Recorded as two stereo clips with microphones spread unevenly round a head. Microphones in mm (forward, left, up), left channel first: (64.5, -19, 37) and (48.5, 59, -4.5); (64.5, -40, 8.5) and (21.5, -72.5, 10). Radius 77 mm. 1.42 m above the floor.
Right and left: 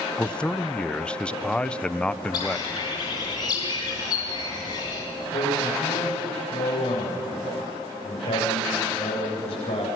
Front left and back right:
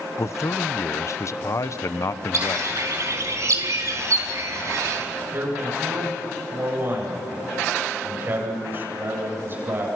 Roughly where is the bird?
Behind right.